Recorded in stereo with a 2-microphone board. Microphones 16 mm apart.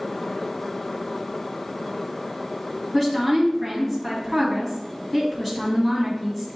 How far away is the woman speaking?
About 1.4 m.